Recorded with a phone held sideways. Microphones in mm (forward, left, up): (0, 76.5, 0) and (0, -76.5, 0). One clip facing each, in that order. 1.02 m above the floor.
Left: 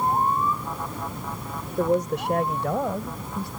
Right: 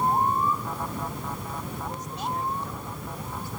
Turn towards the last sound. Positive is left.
turn(degrees=75)  # may be behind; listen again after turning